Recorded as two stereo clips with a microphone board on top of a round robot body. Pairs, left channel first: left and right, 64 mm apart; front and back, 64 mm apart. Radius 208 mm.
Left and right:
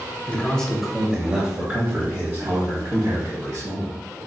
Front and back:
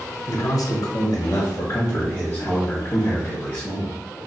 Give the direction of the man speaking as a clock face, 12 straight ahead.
11 o'clock.